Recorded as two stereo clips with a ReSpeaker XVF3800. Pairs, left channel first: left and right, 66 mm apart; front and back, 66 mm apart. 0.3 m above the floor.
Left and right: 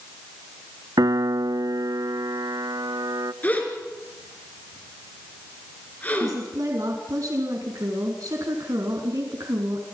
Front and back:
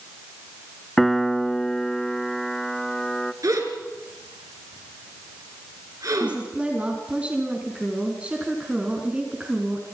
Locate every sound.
1.0 s a piano: 85° right, 0.6 m
3.4 s a gasp: 155° left, 4 m
6.2 s a woman speaking: 110° right, 3.5 m